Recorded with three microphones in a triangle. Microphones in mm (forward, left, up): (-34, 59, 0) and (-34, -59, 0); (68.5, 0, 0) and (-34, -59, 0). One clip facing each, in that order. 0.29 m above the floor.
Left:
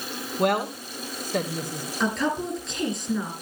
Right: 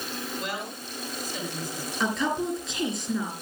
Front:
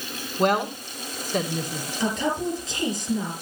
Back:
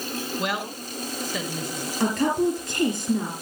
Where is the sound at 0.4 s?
70° left, 2.5 m.